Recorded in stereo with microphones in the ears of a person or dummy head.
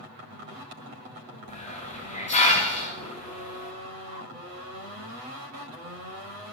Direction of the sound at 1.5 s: 30° left (ahead or behind).